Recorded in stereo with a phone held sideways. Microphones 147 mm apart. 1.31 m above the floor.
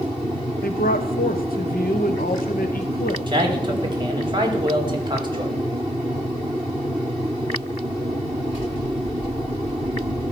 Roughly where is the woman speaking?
Left.